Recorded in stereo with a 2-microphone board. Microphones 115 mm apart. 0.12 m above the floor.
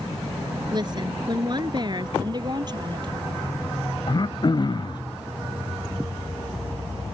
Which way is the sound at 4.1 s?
40° left (ahead or behind).